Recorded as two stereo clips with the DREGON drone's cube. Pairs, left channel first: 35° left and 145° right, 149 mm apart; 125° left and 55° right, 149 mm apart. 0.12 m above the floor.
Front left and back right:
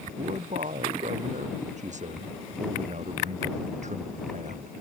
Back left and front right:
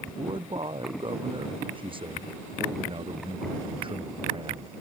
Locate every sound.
0.2 s a man speaking: 110° right